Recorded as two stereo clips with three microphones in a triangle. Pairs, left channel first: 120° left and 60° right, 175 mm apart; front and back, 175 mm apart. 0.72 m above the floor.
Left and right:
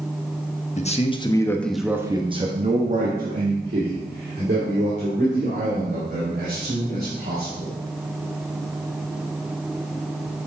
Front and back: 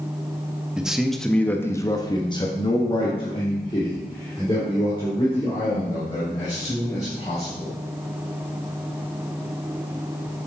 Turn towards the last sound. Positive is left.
turn(degrees=-65)